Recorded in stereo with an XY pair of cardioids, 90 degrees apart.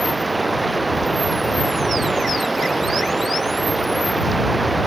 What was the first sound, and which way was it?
Running water, 20° right.